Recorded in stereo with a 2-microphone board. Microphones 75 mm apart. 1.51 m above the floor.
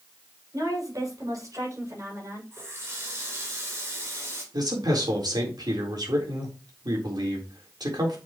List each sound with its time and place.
0.5 s a woman speaking: 50° right (ahead or behind), 7 m; by 2.4 s 40° right (ahead or behind), 7 m
2.5 s a running tap: 40° right (ahead or behind), 4 m
4.5 s a man speaking: 65° right (ahead or behind), 4 m